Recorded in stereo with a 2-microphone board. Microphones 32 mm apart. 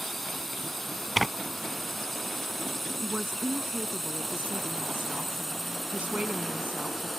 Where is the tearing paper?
Centre (ahead or behind).